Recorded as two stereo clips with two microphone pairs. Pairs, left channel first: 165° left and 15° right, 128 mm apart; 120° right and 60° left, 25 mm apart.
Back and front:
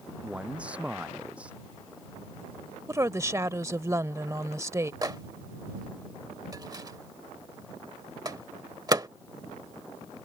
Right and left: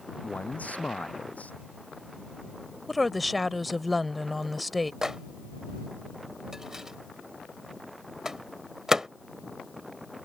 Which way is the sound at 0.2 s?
95° right.